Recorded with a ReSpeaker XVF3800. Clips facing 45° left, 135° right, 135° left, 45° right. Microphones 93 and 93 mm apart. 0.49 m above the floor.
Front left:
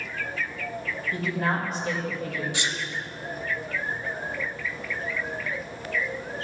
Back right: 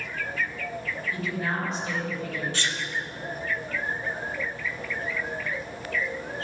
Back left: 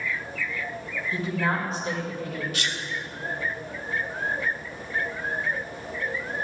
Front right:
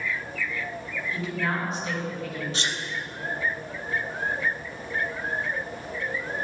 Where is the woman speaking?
80° left, 3 m.